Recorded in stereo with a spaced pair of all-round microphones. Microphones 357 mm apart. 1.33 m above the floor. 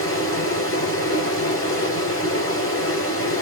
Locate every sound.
0.0 s running water: 35° left (ahead or behind), 1.8 m